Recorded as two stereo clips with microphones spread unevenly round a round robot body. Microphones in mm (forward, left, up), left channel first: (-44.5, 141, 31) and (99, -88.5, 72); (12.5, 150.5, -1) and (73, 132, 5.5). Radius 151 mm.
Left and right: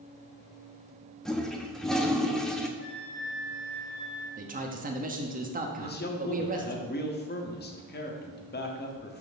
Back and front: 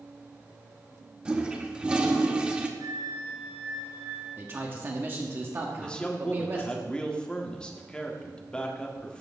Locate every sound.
1.2 s a toilet flushing: 55° left, 0.9 m
2.8 s a flute: 20° right, 2 m
4.4 s a man speaking: 20° right, 1.3 m
5.8 s a man speaking: 100° left, 1.4 m